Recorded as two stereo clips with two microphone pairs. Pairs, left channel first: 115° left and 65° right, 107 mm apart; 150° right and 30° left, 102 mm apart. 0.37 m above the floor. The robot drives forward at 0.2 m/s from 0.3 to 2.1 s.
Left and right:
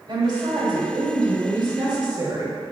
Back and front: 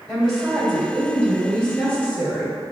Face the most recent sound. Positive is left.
turn(degrees=-75)